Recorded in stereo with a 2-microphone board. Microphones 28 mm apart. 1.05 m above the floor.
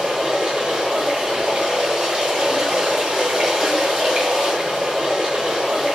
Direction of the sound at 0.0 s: 30° right (ahead or behind).